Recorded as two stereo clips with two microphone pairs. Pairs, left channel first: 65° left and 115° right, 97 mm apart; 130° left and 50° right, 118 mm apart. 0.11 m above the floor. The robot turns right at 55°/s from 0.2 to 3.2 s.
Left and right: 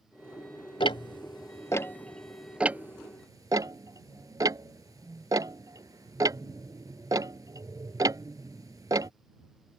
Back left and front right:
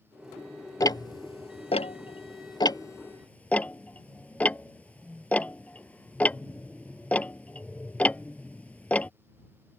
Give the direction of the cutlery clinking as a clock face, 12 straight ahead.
No cutlery clinking in this recording.